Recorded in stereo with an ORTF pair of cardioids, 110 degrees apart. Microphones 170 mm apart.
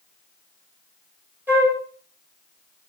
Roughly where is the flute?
Ahead.